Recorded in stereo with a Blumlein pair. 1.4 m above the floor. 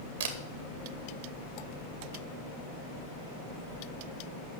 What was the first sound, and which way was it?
A camera shutter, 60° right.